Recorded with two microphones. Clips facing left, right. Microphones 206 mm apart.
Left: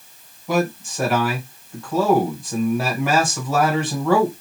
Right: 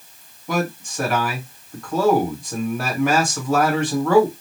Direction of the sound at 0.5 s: 5° left (ahead or behind).